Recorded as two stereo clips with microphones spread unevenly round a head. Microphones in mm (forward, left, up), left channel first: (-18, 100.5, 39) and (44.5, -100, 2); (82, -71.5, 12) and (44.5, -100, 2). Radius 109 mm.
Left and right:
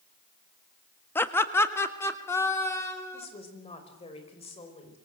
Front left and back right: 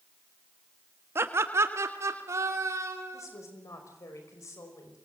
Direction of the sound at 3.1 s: 40° left.